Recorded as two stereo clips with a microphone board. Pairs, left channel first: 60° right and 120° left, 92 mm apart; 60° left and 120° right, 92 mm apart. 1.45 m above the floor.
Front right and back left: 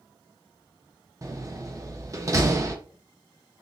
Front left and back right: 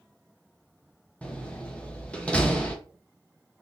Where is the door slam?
130° left, 0.8 m.